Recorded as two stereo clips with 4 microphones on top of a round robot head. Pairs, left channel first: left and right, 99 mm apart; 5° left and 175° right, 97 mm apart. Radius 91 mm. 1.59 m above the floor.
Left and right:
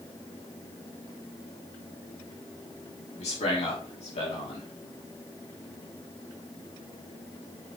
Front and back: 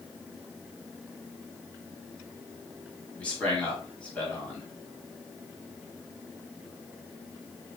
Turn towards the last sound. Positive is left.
turn(degrees=80)